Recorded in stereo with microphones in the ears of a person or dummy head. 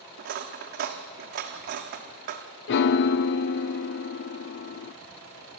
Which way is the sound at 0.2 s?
60° right (ahead or behind).